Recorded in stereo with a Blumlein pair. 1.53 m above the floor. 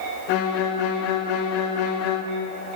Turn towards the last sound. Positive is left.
turn(degrees=45)